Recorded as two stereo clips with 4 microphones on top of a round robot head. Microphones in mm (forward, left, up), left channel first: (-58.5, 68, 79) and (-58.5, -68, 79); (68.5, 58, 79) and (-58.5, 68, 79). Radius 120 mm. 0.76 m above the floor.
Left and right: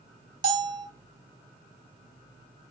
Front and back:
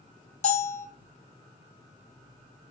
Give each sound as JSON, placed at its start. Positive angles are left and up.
{"t": 0.4, "sound": "a bell", "azimuth_deg": -55, "distance_m": 2.0}